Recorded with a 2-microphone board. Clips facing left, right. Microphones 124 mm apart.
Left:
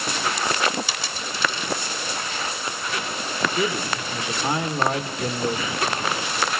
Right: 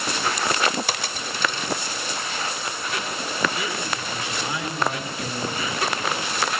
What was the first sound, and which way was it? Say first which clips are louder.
A dropped coin: right 2 dB; 55° right (ahead or behind).